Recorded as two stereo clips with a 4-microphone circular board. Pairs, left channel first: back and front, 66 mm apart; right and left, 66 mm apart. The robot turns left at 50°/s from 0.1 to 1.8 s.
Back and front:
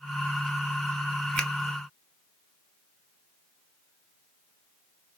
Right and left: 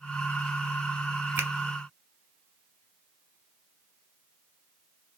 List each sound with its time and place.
1.4 s a finger snap: 105° left, 1.5 m; by 1.5 s 100° left, 1.5 m